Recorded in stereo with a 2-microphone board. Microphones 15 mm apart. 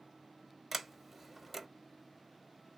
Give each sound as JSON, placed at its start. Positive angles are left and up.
{"t": 0.7, "sound": "a sliding door", "side_deg": -15, "distance_m": 1.0}